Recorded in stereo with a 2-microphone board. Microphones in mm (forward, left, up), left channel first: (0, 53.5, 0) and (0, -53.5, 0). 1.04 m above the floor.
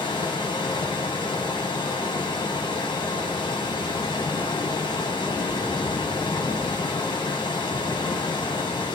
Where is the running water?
45° left (ahead or behind), 1.8 m.